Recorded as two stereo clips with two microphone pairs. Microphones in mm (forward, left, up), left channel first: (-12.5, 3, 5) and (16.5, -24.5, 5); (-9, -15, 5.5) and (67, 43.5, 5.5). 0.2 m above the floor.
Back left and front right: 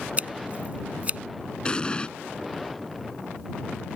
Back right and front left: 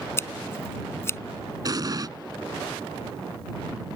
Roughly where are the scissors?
Right.